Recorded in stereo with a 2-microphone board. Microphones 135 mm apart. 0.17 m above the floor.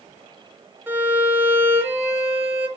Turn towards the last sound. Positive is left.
turn(degrees=-15)  # may be behind; listen again after turning